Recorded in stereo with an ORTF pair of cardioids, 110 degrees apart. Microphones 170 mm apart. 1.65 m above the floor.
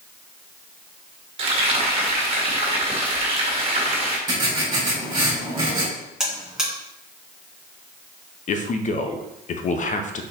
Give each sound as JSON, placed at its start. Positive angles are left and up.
{"t": 1.4, "sound": "frying", "azimuth_deg": -35, "distance_m": 2.0}
{"t": 4.3, "sound": "writing", "azimuth_deg": -30, "distance_m": 3.0}
{"t": 6.2, "sound": "a buzzer", "azimuth_deg": -5, "distance_m": 3.0}
{"t": 8.5, "sound": "a man speaking", "azimuth_deg": 50, "distance_m": 0.9}